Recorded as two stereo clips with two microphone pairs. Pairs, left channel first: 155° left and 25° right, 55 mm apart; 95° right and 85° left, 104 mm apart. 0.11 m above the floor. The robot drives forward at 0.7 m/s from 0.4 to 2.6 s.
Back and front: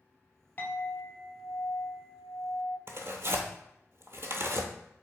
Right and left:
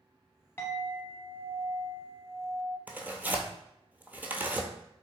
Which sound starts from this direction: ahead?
Tearing paper, at 2.9 s.